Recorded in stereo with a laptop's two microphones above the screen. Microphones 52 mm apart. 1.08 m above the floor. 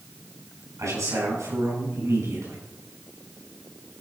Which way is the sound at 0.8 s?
85° right.